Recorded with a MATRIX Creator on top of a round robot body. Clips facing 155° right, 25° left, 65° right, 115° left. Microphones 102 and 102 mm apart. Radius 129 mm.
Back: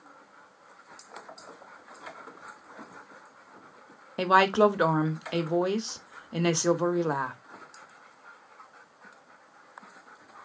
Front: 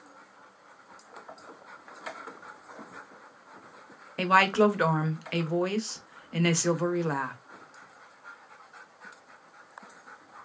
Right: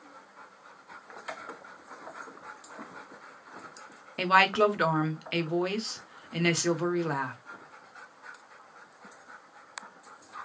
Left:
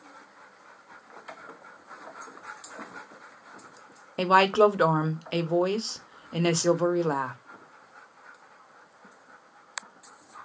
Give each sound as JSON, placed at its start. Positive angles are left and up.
{"t": 4.2, "sound": "a woman speaking", "azimuth_deg": 145, "distance_m": 1.0}